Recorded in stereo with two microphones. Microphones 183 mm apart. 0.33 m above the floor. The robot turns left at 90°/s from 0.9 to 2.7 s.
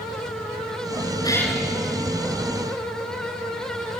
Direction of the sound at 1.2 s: 25° left.